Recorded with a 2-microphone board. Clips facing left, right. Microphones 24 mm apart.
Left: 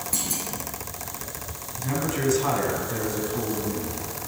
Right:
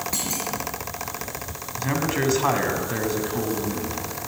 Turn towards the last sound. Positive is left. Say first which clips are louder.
# right 3 dB
turn(degrees=-35)  # may be behind; listen again after turning